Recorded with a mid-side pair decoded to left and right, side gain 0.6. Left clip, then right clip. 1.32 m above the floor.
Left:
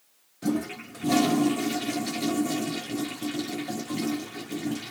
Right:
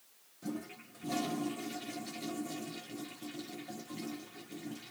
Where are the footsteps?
I don't hear footsteps.